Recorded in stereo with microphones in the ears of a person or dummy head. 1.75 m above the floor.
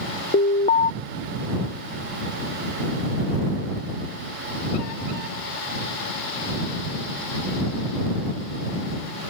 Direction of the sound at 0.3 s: 50° left (ahead or behind).